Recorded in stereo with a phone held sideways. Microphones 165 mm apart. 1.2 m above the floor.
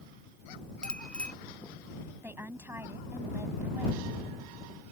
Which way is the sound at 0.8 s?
5° left (ahead or behind).